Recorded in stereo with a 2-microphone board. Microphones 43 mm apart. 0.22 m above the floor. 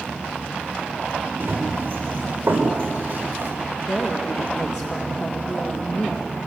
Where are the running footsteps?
40° right (ahead or behind), 8.5 m; by 3.5 s 45° right (ahead or behind), 7.5 m.